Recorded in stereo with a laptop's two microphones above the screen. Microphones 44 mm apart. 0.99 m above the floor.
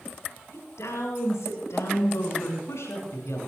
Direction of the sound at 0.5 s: 80° left.